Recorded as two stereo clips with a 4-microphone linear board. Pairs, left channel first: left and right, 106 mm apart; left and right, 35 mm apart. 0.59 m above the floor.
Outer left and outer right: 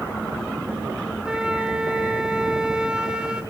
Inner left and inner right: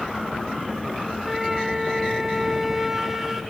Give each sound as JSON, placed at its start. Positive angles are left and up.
{"t": 1.2, "sound": "a flute", "side_deg": -5, "distance_m": 0.9}